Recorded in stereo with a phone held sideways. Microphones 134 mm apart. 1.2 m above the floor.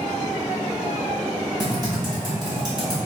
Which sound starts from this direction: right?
Typing on a keyboard, at 1.6 s.